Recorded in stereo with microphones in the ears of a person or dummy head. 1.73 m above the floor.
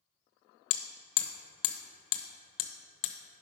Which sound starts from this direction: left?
Hammering, at 0.7 s.